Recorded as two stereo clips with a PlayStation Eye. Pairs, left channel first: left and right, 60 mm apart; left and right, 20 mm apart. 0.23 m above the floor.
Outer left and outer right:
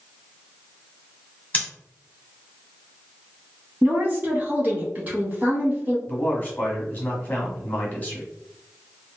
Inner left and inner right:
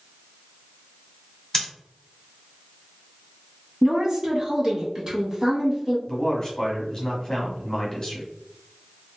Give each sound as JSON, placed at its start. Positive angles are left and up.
{"t": 1.5, "sound": "scissors", "side_deg": 25, "distance_m": 1.9}
{"t": 3.8, "sound": "a woman speaking", "side_deg": -30, "distance_m": 1.8}
{"t": 6.1, "sound": "a man speaking", "side_deg": 30, "distance_m": 1.5}